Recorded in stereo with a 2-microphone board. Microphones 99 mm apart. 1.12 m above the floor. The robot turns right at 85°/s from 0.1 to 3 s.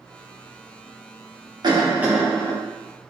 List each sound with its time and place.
1.6 s a cough: 55° right, 0.9 m; by 2.5 s 25° left, 0.9 m